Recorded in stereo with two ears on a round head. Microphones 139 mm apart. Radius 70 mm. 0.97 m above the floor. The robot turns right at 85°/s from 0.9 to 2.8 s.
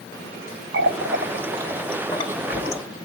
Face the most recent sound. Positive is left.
turn(degrees=80)